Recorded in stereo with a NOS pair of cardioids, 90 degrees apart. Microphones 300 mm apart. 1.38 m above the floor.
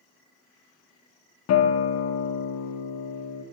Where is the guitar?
60° left, 0.8 m.